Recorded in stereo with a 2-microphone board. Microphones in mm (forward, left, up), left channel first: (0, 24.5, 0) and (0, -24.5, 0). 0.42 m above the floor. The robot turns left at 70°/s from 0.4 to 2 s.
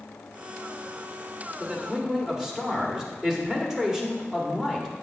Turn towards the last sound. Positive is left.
turn(degrees=-10)  # may be behind; listen again after turning